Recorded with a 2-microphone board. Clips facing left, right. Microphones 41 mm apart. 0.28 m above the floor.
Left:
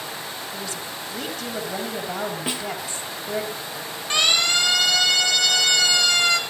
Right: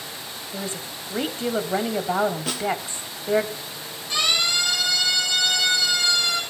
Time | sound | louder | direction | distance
0.5 | a woman speaking | even | 35° right (ahead or behind) | 1.8 m
2.5 | a snare drum | right 1 dB | 20° left (ahead or behind) | 3 m
4.1 | a siren | left 2 dB | 65° left (ahead or behind) | 8 m